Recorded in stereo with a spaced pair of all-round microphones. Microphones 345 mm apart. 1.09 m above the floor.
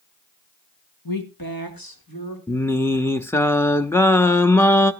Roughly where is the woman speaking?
Left.